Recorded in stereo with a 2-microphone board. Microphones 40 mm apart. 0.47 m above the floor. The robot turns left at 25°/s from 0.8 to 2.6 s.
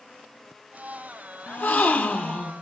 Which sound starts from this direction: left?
A gasp, at 1.5 s.